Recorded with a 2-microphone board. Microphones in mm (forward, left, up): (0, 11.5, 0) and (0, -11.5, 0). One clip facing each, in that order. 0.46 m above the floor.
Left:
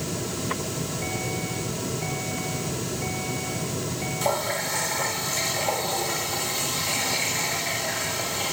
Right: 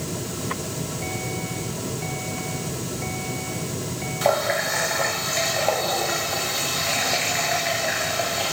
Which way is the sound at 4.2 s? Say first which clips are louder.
Right 6 dB; 35° right (ahead or behind).